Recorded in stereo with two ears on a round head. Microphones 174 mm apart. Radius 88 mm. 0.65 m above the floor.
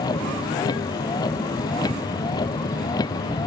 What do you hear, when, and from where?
0.0 s a vehicle: 20° left (ahead or behind)